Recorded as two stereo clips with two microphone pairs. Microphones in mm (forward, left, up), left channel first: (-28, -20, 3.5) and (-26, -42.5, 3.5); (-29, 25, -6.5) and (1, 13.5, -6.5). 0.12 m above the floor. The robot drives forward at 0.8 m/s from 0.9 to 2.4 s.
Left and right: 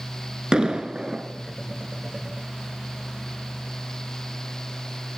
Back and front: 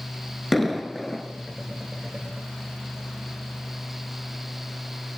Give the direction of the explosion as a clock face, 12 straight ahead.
4 o'clock.